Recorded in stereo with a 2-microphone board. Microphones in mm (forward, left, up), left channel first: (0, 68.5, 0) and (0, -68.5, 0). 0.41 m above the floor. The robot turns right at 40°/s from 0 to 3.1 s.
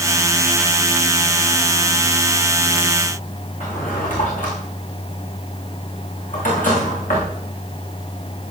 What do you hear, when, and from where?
3.6 s a drawer: 80° left, 8.5 m